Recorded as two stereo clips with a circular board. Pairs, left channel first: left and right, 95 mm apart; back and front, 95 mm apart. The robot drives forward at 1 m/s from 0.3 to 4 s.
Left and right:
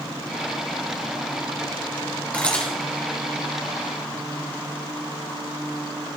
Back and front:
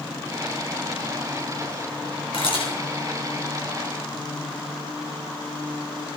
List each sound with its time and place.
2.3 s a camera shutter: 165° left, 3.5 m